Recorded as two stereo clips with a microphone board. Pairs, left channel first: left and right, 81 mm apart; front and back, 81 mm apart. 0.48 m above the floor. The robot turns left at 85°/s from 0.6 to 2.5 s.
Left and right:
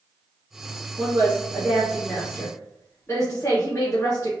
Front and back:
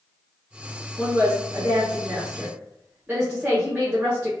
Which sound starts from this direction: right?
A woman speaking, at 1.0 s.